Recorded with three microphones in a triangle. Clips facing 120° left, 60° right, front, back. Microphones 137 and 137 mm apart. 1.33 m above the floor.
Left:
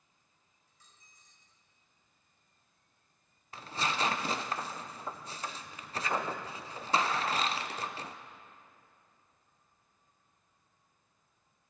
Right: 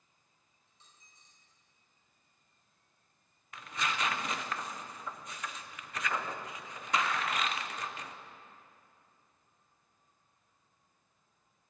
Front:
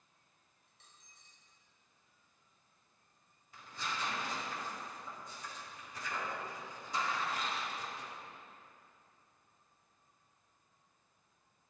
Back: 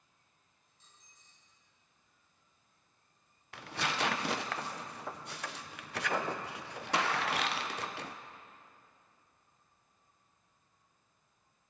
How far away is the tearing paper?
About 0.6 m.